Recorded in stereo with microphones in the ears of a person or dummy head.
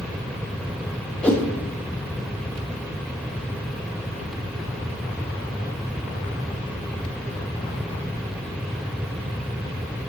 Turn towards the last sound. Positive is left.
turn(degrees=5)  # may be behind; listen again after turning